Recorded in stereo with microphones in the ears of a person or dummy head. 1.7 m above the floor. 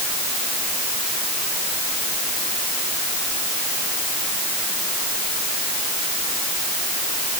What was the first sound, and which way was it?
Only background noise.